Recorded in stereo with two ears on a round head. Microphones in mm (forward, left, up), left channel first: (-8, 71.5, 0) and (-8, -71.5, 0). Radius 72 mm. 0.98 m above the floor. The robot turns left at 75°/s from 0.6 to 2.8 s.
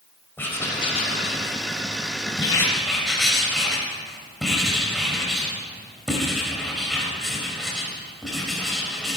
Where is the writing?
165° left, 3.5 m; by 9.2 s straight ahead, 3.5 m.